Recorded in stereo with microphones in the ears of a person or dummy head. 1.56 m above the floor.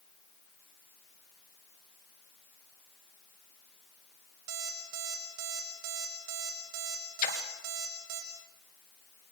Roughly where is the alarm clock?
Right.